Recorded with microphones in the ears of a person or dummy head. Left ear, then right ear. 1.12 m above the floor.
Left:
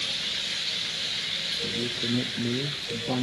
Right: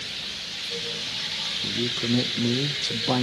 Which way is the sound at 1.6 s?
45° right (ahead or behind).